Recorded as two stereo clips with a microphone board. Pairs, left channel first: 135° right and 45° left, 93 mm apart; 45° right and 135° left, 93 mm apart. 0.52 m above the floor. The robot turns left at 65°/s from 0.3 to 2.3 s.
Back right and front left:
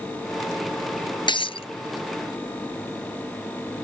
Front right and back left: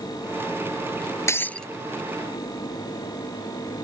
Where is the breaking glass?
105° right; by 1.7 s 130° right.